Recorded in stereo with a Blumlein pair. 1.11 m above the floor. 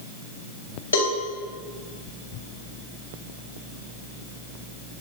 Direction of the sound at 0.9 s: 70° left.